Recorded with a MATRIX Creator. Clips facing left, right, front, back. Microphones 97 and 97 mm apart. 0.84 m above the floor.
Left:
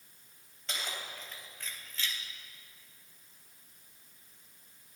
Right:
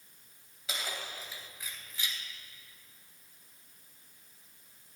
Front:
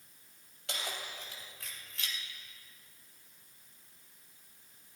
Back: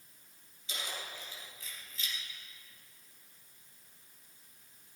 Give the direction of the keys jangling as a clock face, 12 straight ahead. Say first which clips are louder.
Right 1 dB, front 2 dB; 12 o'clock.